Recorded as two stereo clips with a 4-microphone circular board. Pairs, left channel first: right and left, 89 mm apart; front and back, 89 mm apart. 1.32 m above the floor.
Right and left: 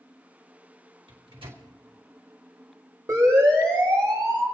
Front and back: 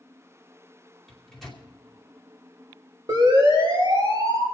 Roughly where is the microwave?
Left.